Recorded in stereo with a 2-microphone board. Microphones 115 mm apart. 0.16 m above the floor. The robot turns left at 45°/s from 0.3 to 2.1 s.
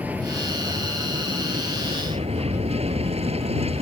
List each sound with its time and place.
0.0 s an aircraft: 15° right; by 3.8 s 95° right